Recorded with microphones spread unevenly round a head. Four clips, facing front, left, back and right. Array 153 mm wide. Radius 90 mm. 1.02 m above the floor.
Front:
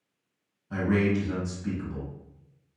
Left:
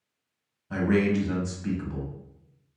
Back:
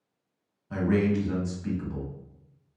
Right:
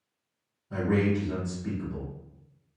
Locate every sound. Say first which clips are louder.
0.7 s a man speaking: left 2 dB, even; 90° left, 1.2 m